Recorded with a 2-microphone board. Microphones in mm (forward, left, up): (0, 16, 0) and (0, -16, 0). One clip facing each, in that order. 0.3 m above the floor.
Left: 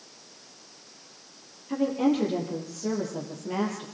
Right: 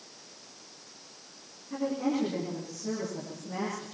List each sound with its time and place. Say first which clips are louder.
1.7 s a woman speaking: left 5 dB; 45° left (ahead or behind), 7.5 m